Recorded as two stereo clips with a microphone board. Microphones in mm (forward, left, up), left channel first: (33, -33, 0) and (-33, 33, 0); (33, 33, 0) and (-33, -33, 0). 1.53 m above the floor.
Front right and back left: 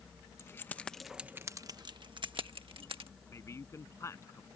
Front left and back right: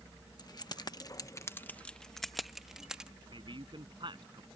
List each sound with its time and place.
0.4 s keys jangling: 10° left; by 3.1 s 145° left
3.3 s a man speaking: 105° right